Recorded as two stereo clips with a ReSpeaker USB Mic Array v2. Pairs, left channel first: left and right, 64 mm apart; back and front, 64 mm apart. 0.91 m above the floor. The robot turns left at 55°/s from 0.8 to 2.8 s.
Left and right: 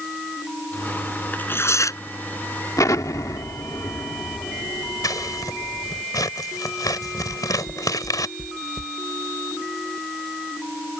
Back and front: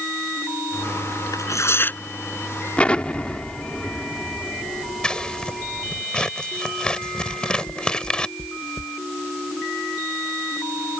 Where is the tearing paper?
155° left; by 2.0 s 115° left.